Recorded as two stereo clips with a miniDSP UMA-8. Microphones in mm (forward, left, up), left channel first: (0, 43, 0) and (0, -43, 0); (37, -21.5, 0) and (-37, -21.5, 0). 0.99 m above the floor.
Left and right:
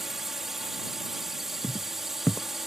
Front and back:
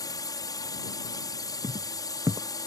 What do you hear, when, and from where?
0.0 s a drone: 5° right
1.6 s footsteps: 150° left